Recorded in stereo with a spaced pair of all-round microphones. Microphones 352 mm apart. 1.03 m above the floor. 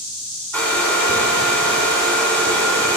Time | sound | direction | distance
0.5 | a hair dryer | 5° left (ahead or behind) | 3 m